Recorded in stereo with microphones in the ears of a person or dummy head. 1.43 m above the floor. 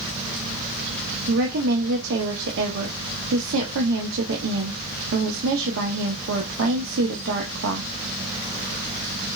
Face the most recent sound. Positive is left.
turn(degrees=-70)  # may be behind; listen again after turning